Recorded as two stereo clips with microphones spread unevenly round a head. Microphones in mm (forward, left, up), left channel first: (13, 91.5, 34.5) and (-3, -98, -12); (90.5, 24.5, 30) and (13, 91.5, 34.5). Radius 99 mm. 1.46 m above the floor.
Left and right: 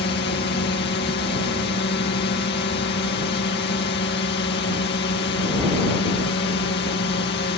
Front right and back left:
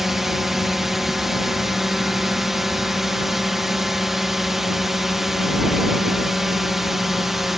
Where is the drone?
50° left.